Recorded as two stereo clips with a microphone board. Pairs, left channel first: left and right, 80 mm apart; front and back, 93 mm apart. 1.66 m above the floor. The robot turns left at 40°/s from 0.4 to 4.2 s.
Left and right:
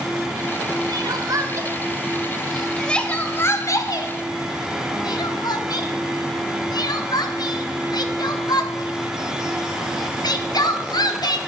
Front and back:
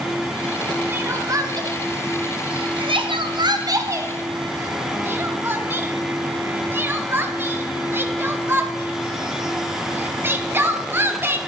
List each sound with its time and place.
0.9 s crying: 115° right, 0.9 m; by 11.4 s 115° left, 0.9 m